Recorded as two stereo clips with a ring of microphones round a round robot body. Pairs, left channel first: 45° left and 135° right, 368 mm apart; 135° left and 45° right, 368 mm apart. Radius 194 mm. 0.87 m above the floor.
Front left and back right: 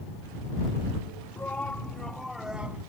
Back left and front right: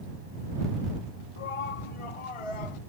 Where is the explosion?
No explosion in this recording.